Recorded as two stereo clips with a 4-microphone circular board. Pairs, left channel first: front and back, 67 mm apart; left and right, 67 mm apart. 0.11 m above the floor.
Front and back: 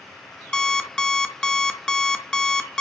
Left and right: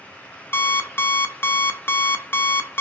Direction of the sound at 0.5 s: 70° left.